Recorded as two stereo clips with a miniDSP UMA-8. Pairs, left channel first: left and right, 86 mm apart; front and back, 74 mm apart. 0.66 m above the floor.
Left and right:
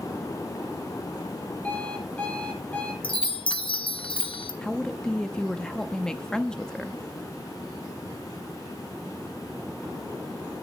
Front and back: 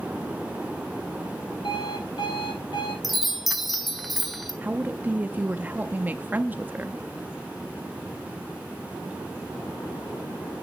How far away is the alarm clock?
About 8 m.